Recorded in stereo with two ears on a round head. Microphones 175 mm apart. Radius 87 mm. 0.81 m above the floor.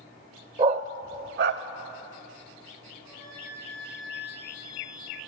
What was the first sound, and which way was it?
A dog barking, 25° right (ahead or behind).